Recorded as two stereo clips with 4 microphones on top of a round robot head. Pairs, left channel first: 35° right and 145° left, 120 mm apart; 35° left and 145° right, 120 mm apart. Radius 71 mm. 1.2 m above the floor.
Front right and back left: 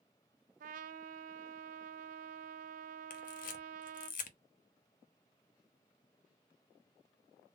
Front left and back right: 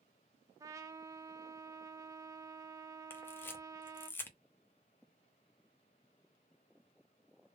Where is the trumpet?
150° left, 0.5 m.